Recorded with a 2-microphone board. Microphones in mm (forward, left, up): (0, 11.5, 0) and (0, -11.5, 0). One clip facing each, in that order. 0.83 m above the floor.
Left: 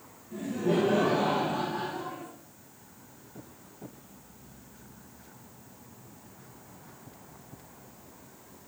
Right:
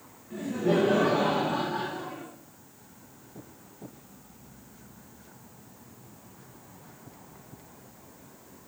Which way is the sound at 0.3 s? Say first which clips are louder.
Right 2 dB; 55° right (ahead or behind).